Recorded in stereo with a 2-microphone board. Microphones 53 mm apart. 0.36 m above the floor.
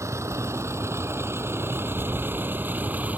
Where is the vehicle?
70° right (ahead or behind); by 3.2 s 30° right (ahead or behind).